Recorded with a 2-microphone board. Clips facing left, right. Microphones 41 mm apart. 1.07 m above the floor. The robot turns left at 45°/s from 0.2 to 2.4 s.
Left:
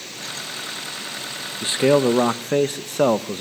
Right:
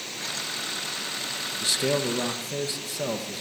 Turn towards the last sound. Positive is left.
turn(degrees=110)